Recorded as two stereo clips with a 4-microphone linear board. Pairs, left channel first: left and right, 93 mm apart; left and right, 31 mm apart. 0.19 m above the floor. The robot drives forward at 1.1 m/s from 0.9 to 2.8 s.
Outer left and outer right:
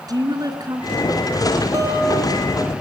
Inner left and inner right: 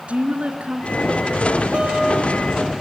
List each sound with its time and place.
0.1 s a woman speaking: 45° right (ahead or behind), 2.5 m; by 1.6 s 35° right (ahead or behind), 3 m
1.7 s a guitar: 35° right (ahead or behind), 4.5 m; by 2.7 s 30° right (ahead or behind), 5.5 m